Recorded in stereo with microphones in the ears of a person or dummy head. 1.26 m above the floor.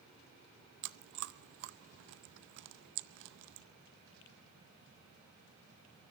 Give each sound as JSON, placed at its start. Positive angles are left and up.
{"t": 0.8, "sound": "chewing", "side_deg": -55, "distance_m": 0.7}